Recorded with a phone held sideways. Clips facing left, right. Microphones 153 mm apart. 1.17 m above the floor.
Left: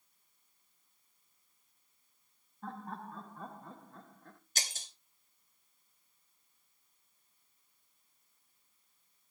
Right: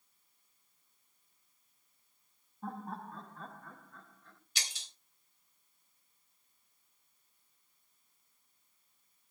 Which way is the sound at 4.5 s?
45° left (ahead or behind).